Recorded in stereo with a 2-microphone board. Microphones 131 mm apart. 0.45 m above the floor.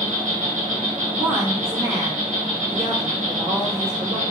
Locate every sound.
0.0 s an insect: 60° right (ahead or behind), 0.8 m
1.0 s a woman speaking: 20° right (ahead or behind), 0.9 m